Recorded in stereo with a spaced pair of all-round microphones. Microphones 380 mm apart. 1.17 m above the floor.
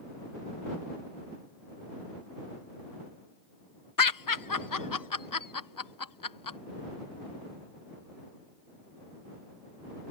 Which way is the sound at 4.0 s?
60° left (ahead or behind).